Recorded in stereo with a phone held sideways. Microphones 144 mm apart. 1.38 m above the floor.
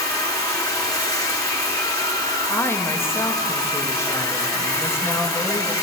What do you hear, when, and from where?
0.0 s running water: 20° left (ahead or behind), 3 m
2.5 s a woman speaking: 15° left (ahead or behind), 2 m